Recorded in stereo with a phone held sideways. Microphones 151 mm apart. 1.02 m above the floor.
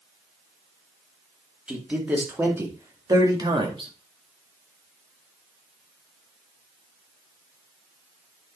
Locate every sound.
1.7 s a man speaking: 5° right (ahead or behind), 2.5 m; by 3.9 s 35° right (ahead or behind), 2 m